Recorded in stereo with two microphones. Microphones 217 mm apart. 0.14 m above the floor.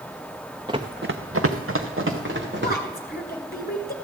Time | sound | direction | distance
0.7 | running footsteps | 20° right (ahead or behind) | 1.0 m
2.6 | a woman speaking | 45° left (ahead or behind) | 1.7 m